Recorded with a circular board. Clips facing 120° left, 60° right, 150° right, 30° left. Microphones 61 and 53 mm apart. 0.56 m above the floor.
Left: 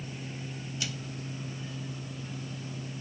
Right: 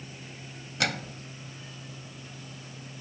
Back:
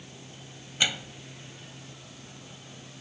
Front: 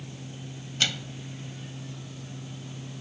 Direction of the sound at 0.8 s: 75° right.